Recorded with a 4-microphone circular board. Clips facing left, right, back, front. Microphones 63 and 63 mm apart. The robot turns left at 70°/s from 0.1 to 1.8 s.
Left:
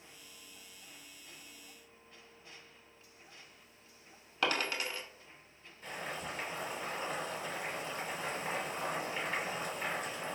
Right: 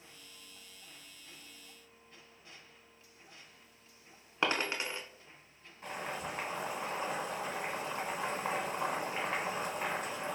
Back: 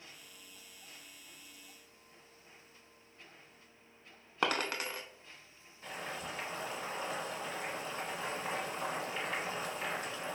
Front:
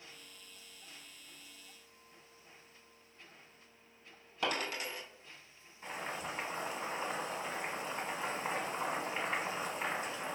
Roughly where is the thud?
I don't hear a thud.